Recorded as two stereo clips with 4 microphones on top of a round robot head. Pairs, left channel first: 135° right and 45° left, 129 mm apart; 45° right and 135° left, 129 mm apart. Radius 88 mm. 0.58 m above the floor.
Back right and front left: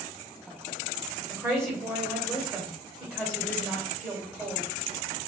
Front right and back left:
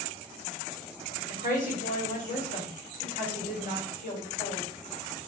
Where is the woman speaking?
30° right, 2 m.